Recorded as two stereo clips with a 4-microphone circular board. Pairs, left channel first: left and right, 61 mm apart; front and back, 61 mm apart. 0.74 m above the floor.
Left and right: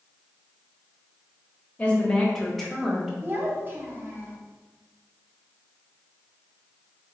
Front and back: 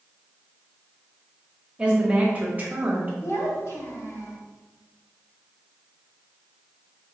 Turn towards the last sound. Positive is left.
turn(degrees=-35)